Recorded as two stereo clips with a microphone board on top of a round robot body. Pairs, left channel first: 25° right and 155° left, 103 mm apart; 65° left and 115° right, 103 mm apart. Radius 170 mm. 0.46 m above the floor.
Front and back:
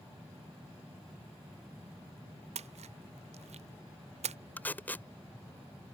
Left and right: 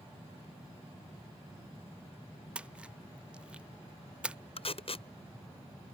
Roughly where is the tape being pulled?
Ahead left.